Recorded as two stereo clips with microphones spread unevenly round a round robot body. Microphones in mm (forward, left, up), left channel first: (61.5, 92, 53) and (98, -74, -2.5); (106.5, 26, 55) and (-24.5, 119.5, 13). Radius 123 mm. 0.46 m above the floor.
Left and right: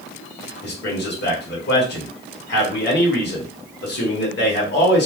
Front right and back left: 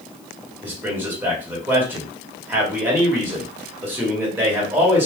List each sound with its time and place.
0.6 s a man speaking: 75° left, 1.8 m